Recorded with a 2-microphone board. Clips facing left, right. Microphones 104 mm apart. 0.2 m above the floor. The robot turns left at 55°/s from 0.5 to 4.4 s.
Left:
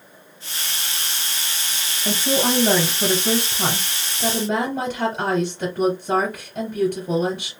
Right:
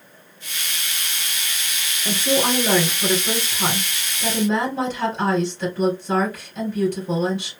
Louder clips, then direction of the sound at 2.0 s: Even; 175° right.